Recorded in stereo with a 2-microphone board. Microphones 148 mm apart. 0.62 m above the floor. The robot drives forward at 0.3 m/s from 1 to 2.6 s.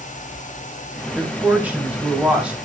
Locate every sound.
1.1 s a woman speaking: 10° right (ahead or behind), 3.5 m